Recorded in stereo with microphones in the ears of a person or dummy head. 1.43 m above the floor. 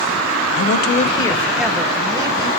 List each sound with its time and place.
0.6 s a man speaking: 75° left (ahead or behind), 0.6 m; by 2.5 s 25° right (ahead or behind), 1.4 m